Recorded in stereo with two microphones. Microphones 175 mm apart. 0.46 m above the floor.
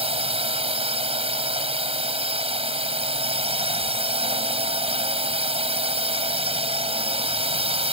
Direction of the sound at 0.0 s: 35° right (ahead or behind).